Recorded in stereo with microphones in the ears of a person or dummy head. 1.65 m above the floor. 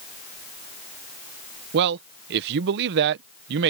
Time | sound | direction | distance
1.7 | a man speaking | 60° right (ahead or behind) | ?